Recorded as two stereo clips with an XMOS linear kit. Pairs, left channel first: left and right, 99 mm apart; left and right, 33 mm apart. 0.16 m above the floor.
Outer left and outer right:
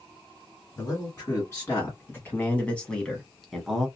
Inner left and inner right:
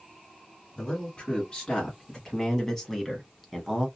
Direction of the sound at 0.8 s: 30° left (ahead or behind).